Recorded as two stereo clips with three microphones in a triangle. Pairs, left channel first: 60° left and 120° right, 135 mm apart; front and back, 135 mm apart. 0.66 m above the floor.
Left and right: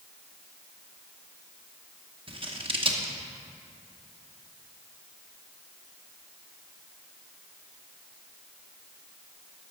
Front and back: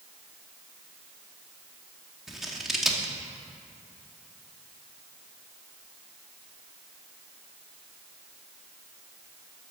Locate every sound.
2.3 s scissors: 95° right, 0.9 m